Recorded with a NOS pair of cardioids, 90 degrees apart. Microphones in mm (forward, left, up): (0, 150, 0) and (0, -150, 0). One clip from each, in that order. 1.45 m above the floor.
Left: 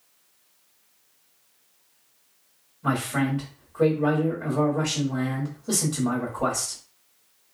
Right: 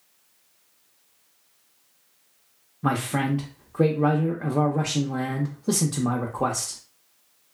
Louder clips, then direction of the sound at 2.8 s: Right 1 dB; 45° right.